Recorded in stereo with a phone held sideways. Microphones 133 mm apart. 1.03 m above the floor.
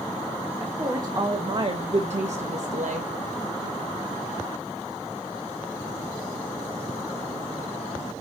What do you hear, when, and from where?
0.6 s a woman speaking: 20° right (ahead or behind), 1.4 m; by 3.1 s 70° right (ahead or behind), 1.1 m